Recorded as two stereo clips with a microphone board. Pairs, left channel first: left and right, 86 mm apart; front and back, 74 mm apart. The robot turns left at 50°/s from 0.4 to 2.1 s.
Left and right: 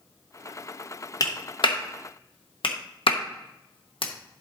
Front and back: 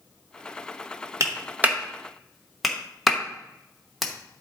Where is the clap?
135° left, 1.1 m; by 4.4 s 90° left, 1.1 m.